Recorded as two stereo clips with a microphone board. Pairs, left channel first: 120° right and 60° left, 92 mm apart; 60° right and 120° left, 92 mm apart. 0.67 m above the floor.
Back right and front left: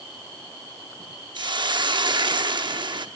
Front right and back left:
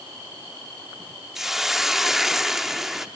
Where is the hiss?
35° left, 0.9 m.